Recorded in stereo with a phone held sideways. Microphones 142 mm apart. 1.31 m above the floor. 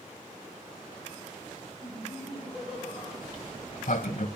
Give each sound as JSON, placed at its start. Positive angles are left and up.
{"t": 1.8, "sound": "laughter", "side_deg": -5, "distance_m": 9.5}
{"t": 3.2, "sound": "a sliding door", "side_deg": 75, "distance_m": 1.8}